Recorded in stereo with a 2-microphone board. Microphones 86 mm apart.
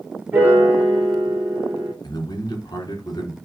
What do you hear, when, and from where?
0.3 s a piano: 20° right (ahead or behind), 3 m
2.0 s a man speaking: 50° left (ahead or behind), 2.5 m